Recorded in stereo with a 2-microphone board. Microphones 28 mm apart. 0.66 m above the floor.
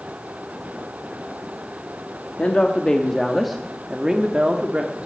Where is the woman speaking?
40° left (ahead or behind), 0.9 m; by 5.0 s 50° right (ahead or behind), 1.2 m.